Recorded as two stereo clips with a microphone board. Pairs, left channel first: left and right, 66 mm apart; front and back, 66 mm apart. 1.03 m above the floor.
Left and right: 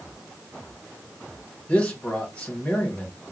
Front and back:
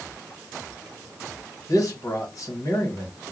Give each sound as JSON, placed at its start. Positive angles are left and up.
{"t": 1.7, "sound": "a man speaking", "azimuth_deg": 20, "distance_m": 1.7}